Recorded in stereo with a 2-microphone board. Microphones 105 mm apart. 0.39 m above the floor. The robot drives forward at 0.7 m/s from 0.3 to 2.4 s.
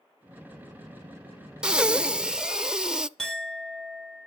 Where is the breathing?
10° right (ahead or behind), 0.5 m.